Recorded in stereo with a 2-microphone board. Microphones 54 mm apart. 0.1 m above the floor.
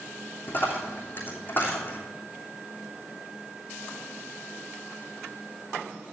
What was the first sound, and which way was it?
A dropped coin, 40° left (ahead or behind).